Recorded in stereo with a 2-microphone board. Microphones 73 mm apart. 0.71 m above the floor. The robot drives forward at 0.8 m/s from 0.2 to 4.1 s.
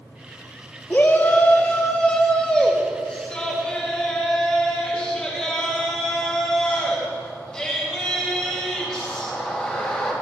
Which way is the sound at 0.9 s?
30° left (ahead or behind).